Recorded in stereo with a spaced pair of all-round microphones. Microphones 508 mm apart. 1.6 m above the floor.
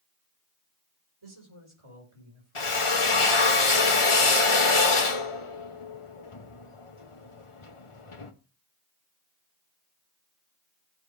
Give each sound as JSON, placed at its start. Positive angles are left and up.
{"t": 1.2, "sound": "a man speaking", "side_deg": -60, "distance_m": 5.0}
{"t": 2.5, "sound": "a drill", "side_deg": 70, "distance_m": 1.2}